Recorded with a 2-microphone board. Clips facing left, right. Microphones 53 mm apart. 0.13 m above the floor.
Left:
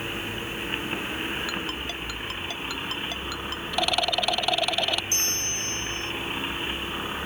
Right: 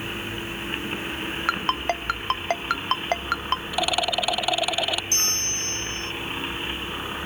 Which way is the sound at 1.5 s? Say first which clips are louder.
Right 7 dB; 55° right (ahead or behind).